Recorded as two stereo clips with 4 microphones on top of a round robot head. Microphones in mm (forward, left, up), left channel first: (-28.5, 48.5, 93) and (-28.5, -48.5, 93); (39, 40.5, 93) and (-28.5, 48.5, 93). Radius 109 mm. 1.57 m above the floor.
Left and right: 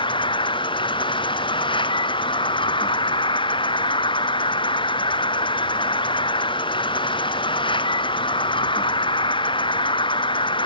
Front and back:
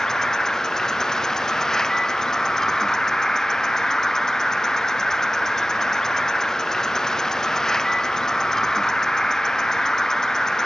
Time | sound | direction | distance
0.0 | an insect | 75° left | ?